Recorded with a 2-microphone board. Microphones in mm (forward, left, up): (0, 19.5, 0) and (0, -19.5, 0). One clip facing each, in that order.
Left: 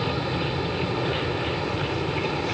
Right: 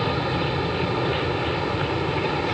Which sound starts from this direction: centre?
An aircraft, at 0.0 s.